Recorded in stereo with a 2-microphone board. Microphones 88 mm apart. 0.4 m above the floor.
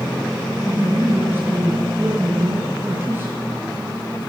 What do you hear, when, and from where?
0.7 s a man speaking: 25° right (ahead or behind), 5.5 m